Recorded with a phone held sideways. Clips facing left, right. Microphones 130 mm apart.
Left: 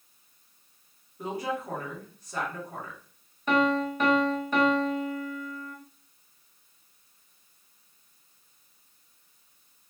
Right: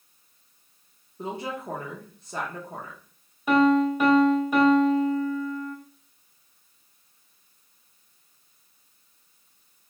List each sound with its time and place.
1.2 s a woman speaking: 25° right (ahead or behind), 0.7 m
3.5 s a piano: 10° right (ahead or behind), 0.9 m